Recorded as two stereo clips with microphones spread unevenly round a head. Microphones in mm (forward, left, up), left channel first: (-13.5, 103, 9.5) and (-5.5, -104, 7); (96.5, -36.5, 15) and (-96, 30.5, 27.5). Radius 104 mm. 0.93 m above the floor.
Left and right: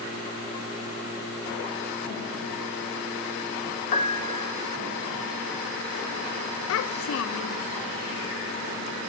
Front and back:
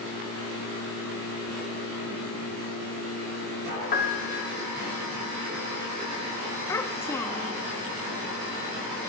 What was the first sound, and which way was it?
A piano, 30° left.